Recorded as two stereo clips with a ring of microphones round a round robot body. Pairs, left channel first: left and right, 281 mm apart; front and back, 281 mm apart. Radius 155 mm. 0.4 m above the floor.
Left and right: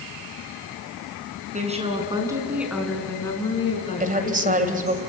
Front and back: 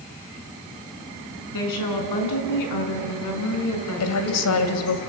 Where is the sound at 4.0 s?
30° right, 2 m.